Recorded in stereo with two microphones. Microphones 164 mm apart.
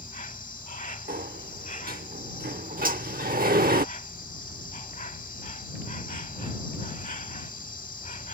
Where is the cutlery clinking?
60° right (ahead or behind).